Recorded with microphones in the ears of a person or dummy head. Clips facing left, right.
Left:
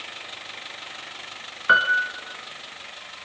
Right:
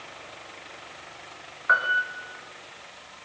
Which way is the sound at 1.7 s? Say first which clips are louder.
Left 3 dB; 45° left (ahead or behind).